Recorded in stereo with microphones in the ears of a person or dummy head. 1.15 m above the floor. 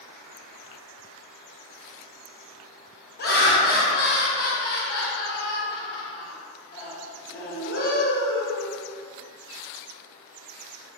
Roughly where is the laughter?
Left.